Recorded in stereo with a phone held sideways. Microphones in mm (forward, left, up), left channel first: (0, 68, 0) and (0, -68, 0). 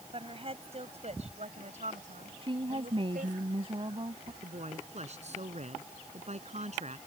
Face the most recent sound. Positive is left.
turn(degrees=-55)  # may be behind; listen again after turning